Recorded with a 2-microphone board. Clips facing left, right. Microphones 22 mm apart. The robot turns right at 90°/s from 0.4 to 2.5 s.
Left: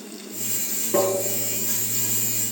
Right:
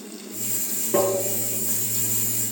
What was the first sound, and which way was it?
Tapping, centre (ahead or behind).